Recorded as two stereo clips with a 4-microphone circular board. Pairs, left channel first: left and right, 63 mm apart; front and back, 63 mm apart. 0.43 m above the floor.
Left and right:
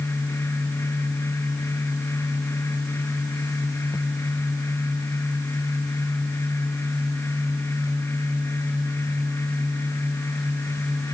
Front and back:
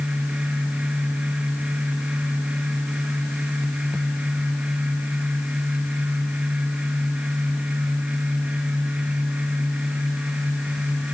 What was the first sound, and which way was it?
Only background noise.